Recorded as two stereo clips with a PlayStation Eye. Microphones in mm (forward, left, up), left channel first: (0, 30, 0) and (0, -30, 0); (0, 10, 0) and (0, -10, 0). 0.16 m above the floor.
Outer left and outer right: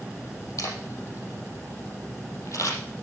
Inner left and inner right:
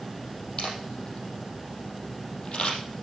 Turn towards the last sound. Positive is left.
turn(degrees=55)  # may be behind; listen again after turning